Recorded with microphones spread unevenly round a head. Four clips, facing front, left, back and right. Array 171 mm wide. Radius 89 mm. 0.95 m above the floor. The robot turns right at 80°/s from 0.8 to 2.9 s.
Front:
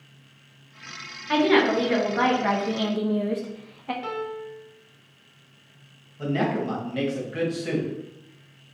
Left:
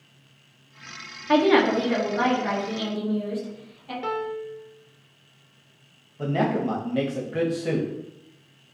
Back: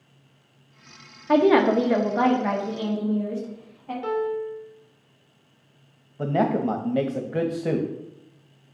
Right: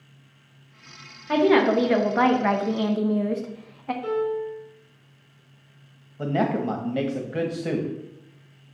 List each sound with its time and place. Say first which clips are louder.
1.3 s a woman speaking: even, back 3 dB; 170° left, 1.0 m; by 3.9 s 65° right, 1.0 m
4.0 s a piano: right 3 dB, back 6 dB; 75° left, 1.2 m
6.2 s a man speaking: even, back 3 dB; 170° right, 1.1 m